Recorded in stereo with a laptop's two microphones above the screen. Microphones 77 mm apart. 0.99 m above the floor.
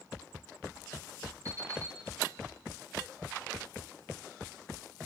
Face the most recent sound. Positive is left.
turn(degrees=-35)  # may be behind; listen again after turning